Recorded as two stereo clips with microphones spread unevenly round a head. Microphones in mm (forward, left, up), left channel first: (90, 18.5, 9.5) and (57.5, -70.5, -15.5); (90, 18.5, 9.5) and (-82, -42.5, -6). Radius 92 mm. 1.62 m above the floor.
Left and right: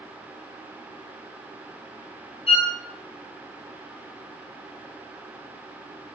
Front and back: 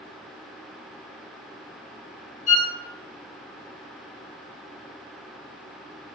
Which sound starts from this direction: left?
A violin, at 2.5 s.